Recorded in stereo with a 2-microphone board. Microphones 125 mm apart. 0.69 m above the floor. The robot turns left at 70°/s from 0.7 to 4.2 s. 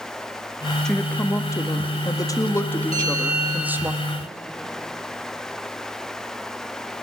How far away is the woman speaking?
About 1.0 m.